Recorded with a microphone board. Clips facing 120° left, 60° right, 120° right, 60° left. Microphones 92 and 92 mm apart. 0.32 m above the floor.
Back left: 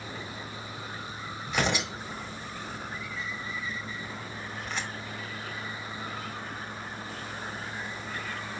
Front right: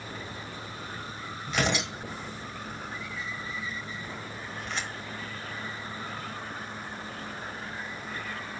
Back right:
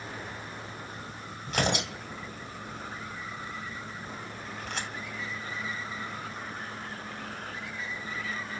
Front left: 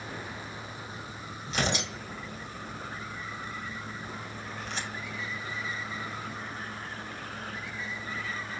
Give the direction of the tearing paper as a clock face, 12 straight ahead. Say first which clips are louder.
Even, back right 2 dB; 5 o'clock.